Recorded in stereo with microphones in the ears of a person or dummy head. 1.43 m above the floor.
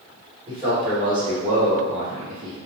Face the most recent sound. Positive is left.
turn(degrees=-75)  # may be behind; listen again after turning